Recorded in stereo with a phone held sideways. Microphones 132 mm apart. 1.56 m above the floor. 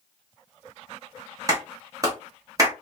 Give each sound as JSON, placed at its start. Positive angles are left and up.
{"t": 1.5, "sound": "a clap", "side_deg": -25, "distance_m": 1.1}